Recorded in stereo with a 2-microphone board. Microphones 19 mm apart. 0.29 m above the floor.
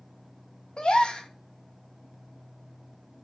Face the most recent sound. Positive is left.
turn(degrees=60)  # may be behind; listen again after turning